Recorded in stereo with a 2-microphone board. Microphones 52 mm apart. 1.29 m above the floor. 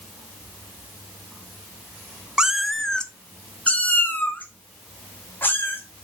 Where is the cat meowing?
15° right (ahead or behind), 0.6 m; by 5.8 s 40° left (ahead or behind), 3 m.